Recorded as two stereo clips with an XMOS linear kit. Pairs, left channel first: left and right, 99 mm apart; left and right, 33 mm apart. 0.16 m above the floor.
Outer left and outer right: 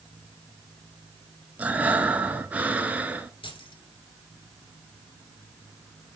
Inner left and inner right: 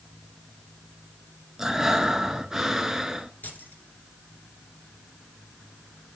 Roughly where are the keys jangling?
Left.